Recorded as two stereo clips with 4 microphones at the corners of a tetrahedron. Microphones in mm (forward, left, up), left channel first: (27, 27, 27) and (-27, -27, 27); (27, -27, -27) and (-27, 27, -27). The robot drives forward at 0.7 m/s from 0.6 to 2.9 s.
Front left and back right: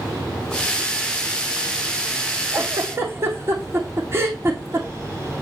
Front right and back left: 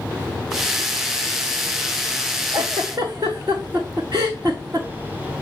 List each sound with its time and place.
2.5 s a giggle: 165° left, 1.6 m